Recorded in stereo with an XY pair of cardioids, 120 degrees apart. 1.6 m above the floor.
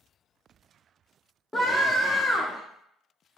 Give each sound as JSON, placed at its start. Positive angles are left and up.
{"t": 1.5, "sound": "a scream", "azimuth_deg": 15, "distance_m": 0.6}